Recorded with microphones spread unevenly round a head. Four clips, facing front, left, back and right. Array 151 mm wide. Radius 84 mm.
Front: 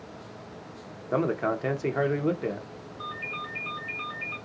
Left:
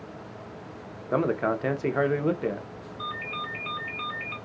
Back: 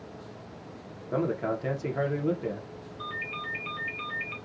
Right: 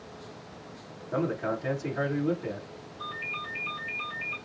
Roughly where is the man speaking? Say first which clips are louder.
Left 4 dB, front 2 dB; ahead left.